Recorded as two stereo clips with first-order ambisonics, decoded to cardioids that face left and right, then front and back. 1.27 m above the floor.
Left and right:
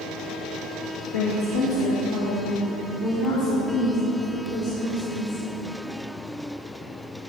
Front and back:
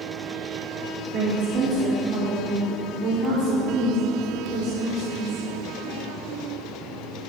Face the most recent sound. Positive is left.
turn(degrees=125)